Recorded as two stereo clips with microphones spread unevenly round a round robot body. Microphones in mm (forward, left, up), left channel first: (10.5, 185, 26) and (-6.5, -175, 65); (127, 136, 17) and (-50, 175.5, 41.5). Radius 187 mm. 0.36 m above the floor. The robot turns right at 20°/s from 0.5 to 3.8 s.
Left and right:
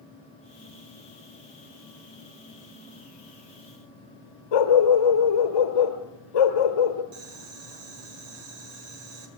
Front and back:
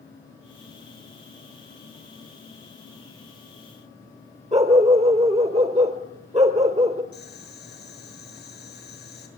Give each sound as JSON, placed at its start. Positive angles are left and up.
{"t": 4.5, "sound": "a dog barking", "azimuth_deg": 115, "distance_m": 3.0}
{"t": 7.1, "sound": "boiling", "azimuth_deg": -70, "distance_m": 5.5}